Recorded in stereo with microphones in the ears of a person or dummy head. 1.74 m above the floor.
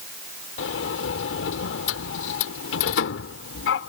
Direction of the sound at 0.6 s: 65° left (ahead or behind).